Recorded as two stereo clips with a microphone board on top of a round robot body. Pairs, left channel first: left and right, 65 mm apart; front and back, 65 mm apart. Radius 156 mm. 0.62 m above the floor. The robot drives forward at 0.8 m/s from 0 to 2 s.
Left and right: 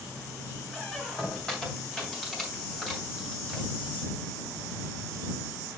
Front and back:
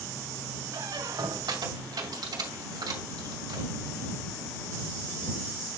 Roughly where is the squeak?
Behind.